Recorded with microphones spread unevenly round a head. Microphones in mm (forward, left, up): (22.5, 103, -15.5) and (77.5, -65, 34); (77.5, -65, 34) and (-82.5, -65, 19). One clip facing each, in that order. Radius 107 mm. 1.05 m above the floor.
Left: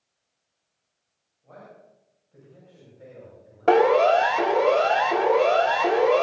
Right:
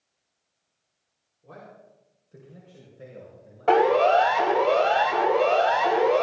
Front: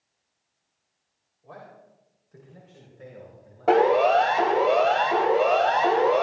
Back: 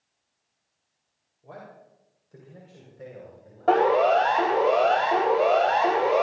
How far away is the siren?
About 4 m.